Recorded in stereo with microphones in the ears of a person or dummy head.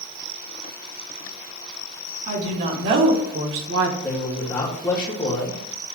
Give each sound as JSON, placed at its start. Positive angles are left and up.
{"t": 2.3, "sound": "a woman speaking", "side_deg": -55, "distance_m": 3.0}
{"t": 4.0, "sound": "a man speaking", "side_deg": 10, "distance_m": 2.5}